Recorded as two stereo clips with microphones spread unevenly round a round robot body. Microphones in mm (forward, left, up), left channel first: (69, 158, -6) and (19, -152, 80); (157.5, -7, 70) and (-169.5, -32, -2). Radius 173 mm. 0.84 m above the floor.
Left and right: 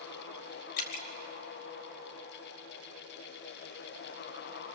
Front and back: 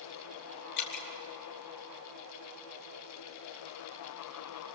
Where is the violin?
I don't hear a violin.